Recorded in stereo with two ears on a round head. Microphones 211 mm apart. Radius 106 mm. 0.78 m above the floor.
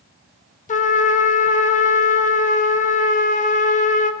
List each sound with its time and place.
0.7 s a trumpet: 30° left (ahead or behind), 0.7 m